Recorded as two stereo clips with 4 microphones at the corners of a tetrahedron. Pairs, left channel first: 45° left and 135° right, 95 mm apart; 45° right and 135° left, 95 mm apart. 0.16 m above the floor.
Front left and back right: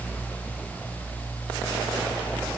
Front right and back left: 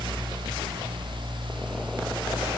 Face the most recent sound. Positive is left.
No sound to turn to.